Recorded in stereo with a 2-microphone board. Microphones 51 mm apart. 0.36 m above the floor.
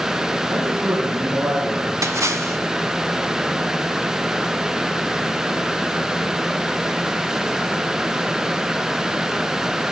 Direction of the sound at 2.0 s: 75° right (ahead or behind).